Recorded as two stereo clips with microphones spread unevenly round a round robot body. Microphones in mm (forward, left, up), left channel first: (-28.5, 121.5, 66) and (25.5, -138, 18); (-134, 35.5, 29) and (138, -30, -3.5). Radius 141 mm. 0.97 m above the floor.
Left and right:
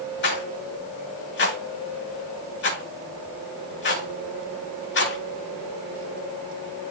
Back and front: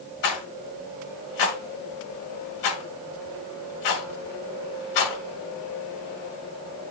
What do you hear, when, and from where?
0.2 s a rattle: 150° left, 2 m